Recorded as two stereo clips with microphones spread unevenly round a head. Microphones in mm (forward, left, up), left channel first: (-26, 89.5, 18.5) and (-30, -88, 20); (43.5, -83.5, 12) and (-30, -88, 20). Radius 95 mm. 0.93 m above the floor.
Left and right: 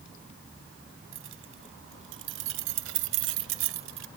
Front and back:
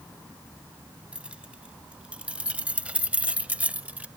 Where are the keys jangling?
100° right; by 4.1 s 105° right.